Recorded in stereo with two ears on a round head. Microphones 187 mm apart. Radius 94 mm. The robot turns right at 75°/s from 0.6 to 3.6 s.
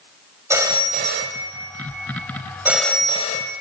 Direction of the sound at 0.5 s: 165° right.